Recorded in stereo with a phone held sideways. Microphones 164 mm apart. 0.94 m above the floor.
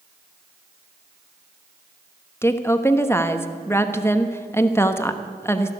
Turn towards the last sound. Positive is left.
turn(degrees=15)  # may be behind; listen again after turning